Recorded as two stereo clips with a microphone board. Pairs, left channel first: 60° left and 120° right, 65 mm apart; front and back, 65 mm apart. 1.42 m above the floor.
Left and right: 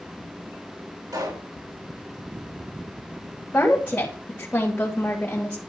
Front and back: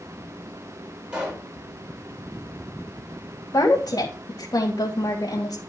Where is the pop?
110° right, 6 m.